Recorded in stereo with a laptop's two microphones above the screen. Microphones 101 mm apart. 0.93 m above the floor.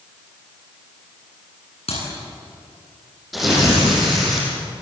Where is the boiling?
I don't hear boiling.